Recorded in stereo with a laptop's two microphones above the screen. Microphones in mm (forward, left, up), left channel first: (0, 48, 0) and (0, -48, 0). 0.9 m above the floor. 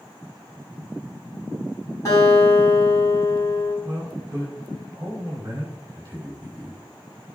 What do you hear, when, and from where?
2.0 s a guitar: 30° left (ahead or behind), 4 m
3.8 s a man speaking: 35° right (ahead or behind), 2.5 m